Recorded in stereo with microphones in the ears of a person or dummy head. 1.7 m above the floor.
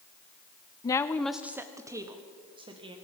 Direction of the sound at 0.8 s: 15° left (ahead or behind).